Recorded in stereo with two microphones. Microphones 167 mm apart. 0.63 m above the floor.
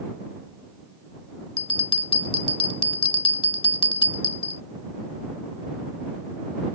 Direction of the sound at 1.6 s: 30° left (ahead or behind).